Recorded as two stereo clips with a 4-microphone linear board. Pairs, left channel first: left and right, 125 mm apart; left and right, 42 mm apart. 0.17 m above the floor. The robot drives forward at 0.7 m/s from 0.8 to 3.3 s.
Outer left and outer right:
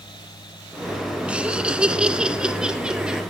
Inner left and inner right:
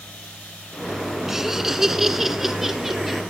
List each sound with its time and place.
1.3 s laughter: 10° right (ahead or behind), 2 m; by 3.2 s 5° right (ahead or behind), 3.5 m